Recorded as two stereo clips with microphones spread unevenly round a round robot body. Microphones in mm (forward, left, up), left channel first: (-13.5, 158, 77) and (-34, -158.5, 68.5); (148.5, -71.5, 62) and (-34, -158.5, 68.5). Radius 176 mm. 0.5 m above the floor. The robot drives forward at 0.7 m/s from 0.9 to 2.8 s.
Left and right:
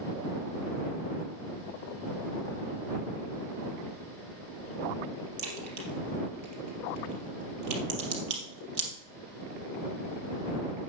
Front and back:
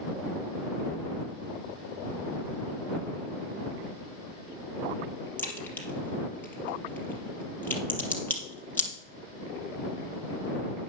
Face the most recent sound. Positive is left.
turn(degrees=-55)